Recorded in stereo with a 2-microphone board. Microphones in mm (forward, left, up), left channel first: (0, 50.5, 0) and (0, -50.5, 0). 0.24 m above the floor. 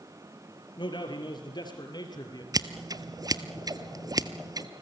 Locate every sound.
0.8 s a man speaking: 50° left (ahead or behind), 4.5 m; by 2.4 s 40° left (ahead or behind), 5 m
2.5 s scissors: 40° right (ahead or behind), 0.9 m